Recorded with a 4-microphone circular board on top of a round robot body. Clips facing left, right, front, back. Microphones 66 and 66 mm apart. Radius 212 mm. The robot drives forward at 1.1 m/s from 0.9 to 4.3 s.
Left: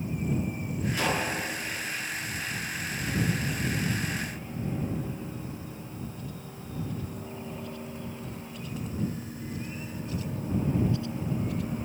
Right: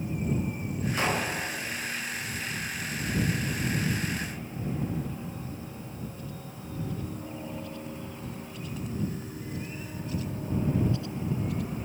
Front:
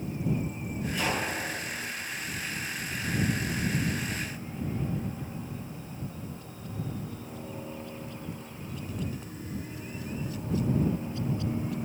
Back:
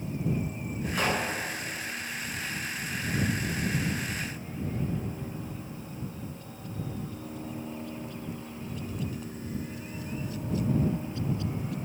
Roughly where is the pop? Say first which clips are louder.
Even, back 2 dB; behind right.